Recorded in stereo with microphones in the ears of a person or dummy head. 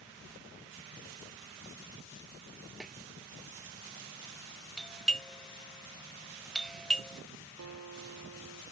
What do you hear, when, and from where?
2.8 s a snare drum: 5° right (ahead or behind)
4.8 s a doorbell: 5° left (ahead or behind)
7.6 s a guitar: 80° right